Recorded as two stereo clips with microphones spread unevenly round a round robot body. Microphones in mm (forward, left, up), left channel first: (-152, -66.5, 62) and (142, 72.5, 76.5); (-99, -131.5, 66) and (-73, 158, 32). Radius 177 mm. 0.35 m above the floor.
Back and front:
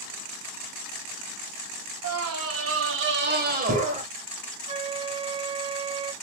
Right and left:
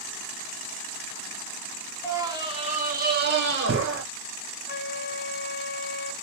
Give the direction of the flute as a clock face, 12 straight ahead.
1 o'clock.